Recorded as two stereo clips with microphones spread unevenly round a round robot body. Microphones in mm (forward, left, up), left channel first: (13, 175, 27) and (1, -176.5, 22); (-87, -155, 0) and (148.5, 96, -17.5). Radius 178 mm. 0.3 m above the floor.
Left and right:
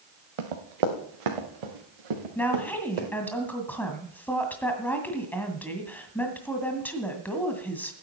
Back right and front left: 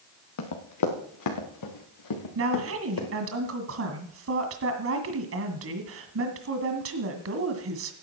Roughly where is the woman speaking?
Ahead.